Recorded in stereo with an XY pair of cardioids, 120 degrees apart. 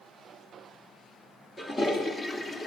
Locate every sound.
1.6 s a toilet flushing: 30° left, 3 m